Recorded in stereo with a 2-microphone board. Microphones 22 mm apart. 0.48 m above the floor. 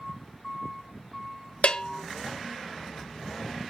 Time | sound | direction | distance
1.6 | a bell | 65° left (ahead or behind) | 0.9 m